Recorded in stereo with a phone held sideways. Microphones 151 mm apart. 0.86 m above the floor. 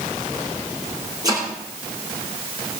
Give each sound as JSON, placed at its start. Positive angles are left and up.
{"t": 1.2, "sound": "chopping", "side_deg": -25, "distance_m": 8.0}